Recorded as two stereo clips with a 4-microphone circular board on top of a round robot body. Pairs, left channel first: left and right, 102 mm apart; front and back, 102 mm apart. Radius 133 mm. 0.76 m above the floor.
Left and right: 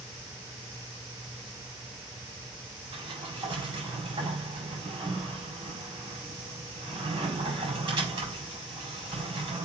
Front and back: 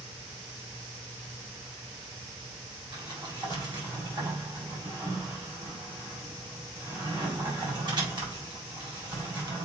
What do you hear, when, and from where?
2.9 s a sliding door: 135° right, 5 m